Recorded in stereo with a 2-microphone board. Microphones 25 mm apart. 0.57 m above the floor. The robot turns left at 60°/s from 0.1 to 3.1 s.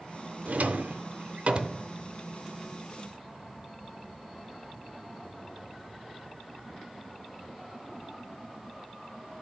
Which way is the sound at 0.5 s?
70° right (ahead or behind).